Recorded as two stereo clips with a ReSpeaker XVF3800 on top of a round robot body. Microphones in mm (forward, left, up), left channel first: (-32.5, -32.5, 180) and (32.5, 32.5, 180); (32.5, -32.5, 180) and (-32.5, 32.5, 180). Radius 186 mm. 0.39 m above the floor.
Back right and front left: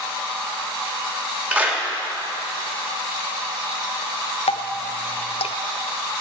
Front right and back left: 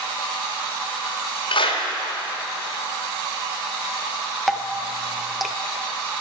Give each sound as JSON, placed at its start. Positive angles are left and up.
{"t": 1.5, "sound": "a clap", "azimuth_deg": -25, "distance_m": 2.5}
{"t": 4.5, "sound": "dripping", "azimuth_deg": -135, "distance_m": 0.8}